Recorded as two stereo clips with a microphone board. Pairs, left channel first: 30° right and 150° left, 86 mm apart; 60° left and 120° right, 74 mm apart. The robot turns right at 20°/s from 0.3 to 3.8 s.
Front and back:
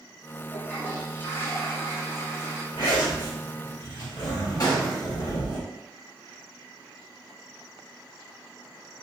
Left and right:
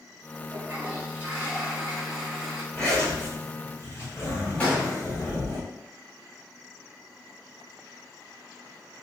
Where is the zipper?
20° right, 1.7 m; by 5.6 s 5° left, 1.7 m.